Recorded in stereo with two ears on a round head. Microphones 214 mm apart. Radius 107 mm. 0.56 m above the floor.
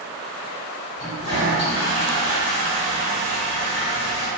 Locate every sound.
1.0 s a toilet flushing: 55° left (ahead or behind), 1.9 m